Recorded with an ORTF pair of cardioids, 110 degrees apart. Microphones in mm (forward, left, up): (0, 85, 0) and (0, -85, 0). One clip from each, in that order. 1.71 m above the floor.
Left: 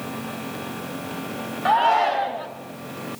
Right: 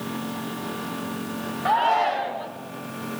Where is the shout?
15° left, 1.2 m.